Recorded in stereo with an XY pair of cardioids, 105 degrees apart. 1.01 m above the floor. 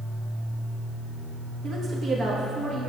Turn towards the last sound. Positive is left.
turn(degrees=-55)